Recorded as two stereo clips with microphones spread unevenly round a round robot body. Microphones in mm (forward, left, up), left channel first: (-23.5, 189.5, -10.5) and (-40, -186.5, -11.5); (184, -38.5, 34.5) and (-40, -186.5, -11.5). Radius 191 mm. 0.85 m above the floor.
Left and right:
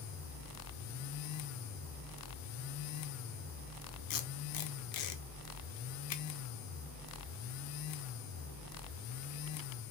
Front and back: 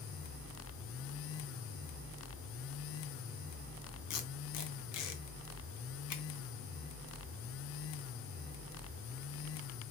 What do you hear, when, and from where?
4.1 s tape being pulled: 50° left, 0.7 m